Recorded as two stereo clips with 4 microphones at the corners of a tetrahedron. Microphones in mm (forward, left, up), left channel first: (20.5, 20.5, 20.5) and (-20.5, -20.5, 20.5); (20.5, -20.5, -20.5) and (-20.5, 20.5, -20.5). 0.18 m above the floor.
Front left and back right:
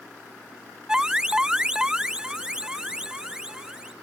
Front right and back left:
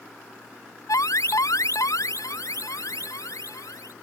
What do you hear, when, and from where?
0.9 s an alarm: 55° right